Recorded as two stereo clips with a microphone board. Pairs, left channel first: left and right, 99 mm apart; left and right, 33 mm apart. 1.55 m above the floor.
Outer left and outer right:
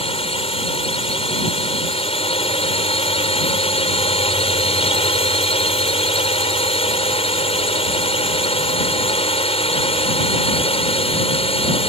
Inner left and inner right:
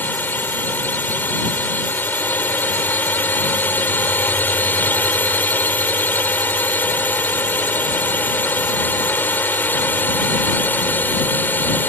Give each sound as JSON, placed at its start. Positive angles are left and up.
{"t": 0.0, "sound": "a drone", "side_deg": 75}